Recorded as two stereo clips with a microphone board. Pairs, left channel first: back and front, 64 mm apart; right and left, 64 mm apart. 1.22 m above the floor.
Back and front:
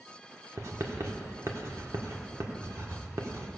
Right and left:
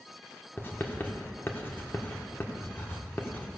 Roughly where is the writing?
Ahead right.